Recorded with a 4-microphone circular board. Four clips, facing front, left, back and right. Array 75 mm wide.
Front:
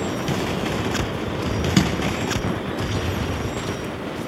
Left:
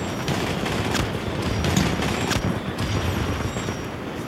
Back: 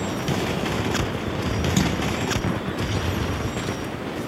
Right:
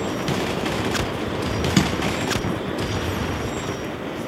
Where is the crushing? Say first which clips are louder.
Right 3 dB, front 4 dB; 55° right, 4.5 m.